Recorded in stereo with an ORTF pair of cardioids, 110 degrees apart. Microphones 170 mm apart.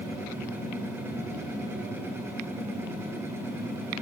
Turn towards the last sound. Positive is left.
turn(degrees=-15)